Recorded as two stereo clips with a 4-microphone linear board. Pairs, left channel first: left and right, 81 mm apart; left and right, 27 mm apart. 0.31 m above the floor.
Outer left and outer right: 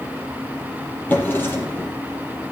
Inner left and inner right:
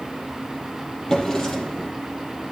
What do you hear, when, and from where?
1.1 s a drawer: 25° left (ahead or behind), 4.5 m